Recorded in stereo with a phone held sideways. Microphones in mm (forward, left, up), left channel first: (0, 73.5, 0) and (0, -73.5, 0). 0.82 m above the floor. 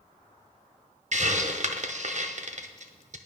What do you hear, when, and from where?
1.1 s a hiss: 55° right (ahead or behind), 0.5 m